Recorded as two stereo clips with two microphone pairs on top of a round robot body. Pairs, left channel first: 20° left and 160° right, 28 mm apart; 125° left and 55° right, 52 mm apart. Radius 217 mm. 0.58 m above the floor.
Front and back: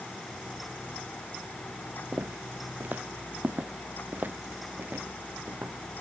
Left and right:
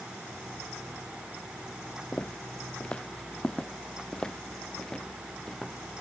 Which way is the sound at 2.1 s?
165° right.